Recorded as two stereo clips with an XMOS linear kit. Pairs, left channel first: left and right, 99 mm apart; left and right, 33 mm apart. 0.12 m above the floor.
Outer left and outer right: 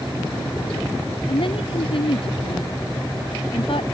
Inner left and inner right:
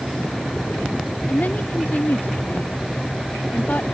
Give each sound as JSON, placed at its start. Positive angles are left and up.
{"t": 1.3, "sound": "a woman speaking", "side_deg": 65}